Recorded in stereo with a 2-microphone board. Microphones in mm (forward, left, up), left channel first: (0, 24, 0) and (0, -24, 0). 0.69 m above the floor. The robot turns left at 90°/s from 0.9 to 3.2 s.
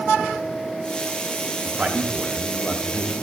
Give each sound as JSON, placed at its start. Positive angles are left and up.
{"t": 1.6, "sound": "a man speaking", "side_deg": -25, "distance_m": 0.6}